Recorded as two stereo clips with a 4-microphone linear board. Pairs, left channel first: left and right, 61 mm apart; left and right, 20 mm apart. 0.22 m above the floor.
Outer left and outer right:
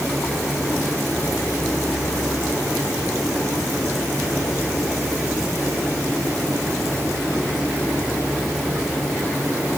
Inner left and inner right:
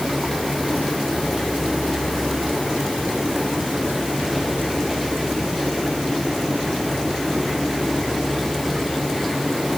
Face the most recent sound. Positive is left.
No sound to turn to.